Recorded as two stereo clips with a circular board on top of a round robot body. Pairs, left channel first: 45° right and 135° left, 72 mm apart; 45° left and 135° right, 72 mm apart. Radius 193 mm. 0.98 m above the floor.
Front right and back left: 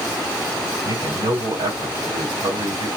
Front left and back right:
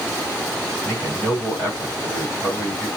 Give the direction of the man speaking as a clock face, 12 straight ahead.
8 o'clock.